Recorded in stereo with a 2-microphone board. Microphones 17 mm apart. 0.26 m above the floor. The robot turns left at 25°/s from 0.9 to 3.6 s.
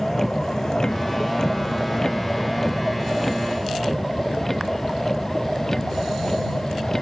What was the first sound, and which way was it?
A vehicle, 20° left (ahead or behind).